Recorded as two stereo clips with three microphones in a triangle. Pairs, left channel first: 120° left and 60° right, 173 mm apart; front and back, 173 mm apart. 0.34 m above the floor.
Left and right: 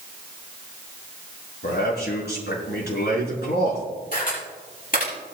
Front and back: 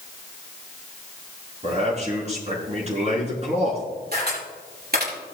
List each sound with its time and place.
1.6 s a man speaking: 130° left, 5 m
4.1 s a camera shutter: 155° left, 7 m